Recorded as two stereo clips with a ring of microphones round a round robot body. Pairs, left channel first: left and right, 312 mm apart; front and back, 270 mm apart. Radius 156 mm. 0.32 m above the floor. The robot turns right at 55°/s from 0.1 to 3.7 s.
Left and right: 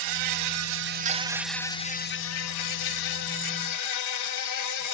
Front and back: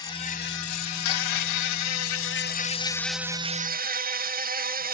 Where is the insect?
75° right, 0.7 m; by 4.9 s 120° left, 0.7 m.